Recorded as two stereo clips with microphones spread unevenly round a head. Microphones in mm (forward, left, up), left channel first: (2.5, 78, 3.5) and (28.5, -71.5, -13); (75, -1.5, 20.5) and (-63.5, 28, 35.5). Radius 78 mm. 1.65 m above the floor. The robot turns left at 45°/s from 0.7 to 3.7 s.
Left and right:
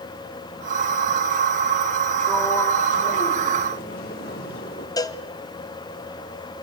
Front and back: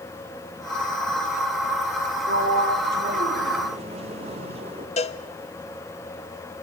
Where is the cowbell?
35° left, 1.1 m.